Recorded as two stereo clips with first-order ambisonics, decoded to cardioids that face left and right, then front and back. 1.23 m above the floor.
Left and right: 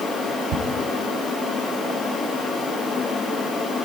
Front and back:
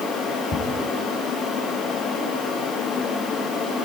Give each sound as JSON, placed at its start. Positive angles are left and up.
{"t": 0.5, "sound": "ticking", "azimuth_deg": -70, "distance_m": 2.5}